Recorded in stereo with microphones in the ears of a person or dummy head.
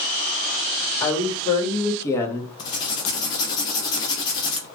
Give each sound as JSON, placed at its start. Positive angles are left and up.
{"t": 1.0, "sound": "a woman speaking", "side_deg": 25, "distance_m": 1.8}
{"t": 2.6, "sound": "writing", "side_deg": 30, "distance_m": 1.0}